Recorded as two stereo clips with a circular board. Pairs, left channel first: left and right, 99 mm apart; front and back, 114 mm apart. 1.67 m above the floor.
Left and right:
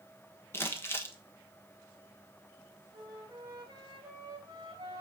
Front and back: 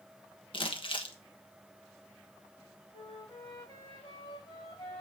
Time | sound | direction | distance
0.5 | crumpling | 30° left | 1.2 m
2.9 | a flute | 45° right | 3 m